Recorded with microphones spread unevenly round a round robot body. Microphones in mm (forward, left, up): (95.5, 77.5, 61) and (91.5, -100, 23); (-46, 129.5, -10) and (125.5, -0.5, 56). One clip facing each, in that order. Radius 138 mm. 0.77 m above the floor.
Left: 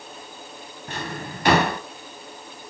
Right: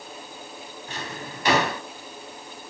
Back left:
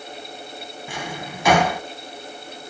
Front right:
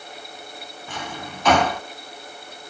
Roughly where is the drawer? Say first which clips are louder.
Left 4 dB, back left 1 dB; ahead left.